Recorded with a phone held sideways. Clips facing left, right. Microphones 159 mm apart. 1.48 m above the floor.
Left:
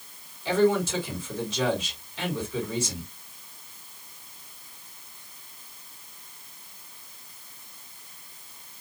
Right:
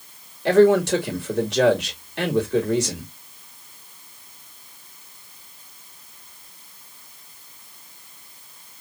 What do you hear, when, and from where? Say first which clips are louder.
0.5 s a man speaking: right 8 dB; 65° right (ahead or behind), 2.5 m